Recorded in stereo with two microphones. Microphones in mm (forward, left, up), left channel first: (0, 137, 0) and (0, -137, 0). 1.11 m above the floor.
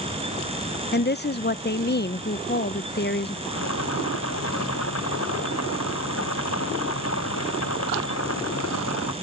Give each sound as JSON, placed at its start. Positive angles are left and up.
{"t": 0.9, "sound": "a woman speaking", "side_deg": 40}
{"t": 3.5, "sound": "boiling", "side_deg": 65}